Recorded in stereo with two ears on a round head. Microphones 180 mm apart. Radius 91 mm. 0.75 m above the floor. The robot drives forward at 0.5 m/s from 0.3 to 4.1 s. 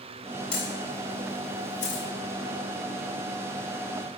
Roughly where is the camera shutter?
Left.